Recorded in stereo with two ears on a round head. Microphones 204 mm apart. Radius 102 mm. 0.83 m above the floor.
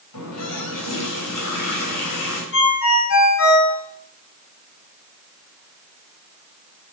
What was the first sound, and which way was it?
A running tap, 85° left.